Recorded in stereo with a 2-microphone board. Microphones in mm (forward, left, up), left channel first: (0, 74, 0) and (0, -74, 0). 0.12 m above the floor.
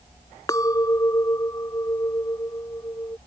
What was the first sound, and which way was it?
A clink, 25° left (ahead or behind).